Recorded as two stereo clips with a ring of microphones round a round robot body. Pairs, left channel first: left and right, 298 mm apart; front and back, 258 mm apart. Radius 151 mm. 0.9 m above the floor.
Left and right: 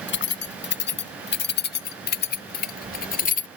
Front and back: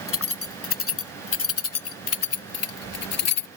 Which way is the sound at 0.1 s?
35° left.